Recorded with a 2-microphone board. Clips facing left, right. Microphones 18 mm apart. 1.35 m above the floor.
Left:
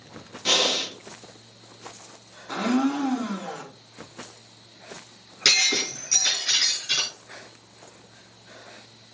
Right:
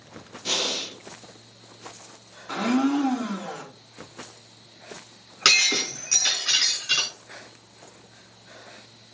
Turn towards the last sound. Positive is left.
turn(degrees=-75)  # may be behind; listen again after turning